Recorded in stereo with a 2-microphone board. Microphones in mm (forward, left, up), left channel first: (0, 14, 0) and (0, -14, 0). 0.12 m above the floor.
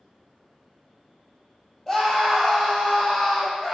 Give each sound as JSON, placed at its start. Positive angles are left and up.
{"t": 1.9, "sound": "a scream", "side_deg": 5, "distance_m": 3.0}